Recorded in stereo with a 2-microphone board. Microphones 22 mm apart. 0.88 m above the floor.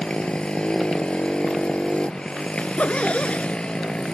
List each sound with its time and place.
0.0 s a motorcycle: 45° left (ahead or behind)
2.6 s a zipper: 60° left (ahead or behind)